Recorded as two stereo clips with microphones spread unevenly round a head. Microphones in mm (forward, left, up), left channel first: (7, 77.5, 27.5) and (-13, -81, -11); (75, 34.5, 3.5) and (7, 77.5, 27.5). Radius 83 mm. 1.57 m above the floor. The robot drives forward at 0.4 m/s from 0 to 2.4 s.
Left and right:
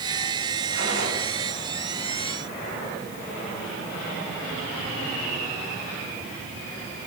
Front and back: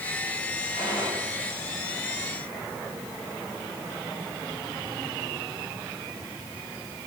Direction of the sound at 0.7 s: 80° right.